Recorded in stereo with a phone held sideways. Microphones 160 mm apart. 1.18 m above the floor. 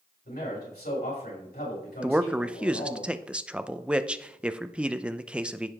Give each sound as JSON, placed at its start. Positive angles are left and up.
{"t": 0.2, "sound": "a man speaking", "side_deg": 80, "distance_m": 5.5}
{"t": 2.0, "sound": "a man speaking", "side_deg": -5, "distance_m": 0.6}